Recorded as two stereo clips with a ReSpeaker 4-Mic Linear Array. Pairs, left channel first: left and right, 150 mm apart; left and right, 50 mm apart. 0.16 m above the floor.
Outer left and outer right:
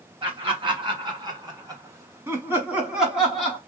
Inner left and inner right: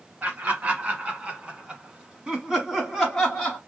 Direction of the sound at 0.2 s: 35° right (ahead or behind).